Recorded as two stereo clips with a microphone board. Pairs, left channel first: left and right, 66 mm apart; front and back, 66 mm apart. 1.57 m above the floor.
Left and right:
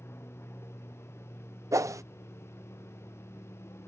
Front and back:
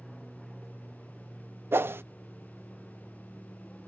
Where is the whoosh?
125° right.